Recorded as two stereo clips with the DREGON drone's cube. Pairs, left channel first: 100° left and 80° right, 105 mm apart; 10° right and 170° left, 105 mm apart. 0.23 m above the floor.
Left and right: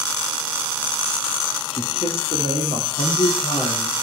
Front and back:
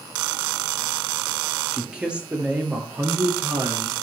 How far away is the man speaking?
About 5 m.